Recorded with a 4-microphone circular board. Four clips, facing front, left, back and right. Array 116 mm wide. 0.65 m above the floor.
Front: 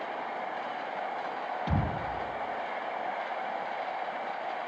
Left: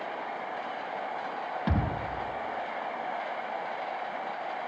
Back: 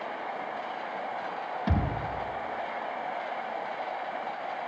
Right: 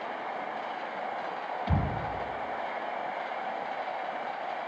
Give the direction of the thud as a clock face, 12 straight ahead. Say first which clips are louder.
Left 1 dB, back 2 dB; 9 o'clock.